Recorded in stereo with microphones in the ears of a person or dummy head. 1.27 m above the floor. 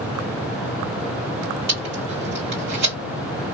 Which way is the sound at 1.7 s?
50° right (ahead or behind).